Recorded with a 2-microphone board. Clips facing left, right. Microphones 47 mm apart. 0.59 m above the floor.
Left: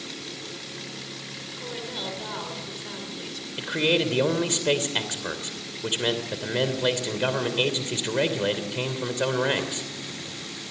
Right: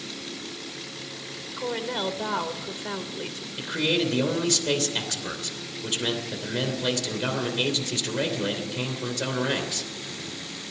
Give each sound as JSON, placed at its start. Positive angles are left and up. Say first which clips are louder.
{"t": 1.6, "sound": "a woman speaking", "louder": "right 7 dB", "side_deg": -35, "distance_m": 2.5}
{"t": 3.6, "sound": "a man speaking", "louder": "left 2 dB", "side_deg": 25, "distance_m": 2.5}